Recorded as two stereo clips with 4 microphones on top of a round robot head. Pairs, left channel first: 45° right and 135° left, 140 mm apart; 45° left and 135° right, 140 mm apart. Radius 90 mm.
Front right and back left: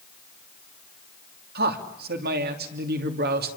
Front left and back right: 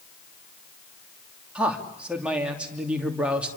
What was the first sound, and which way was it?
A man speaking, 140° left.